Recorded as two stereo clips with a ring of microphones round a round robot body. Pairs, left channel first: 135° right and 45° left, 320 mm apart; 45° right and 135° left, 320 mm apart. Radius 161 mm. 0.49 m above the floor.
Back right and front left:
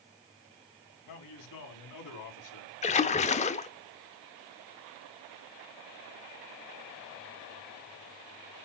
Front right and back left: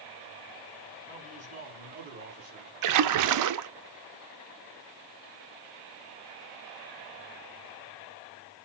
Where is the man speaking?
155° right, 4.5 m; by 2.7 s 165° right, 5 m.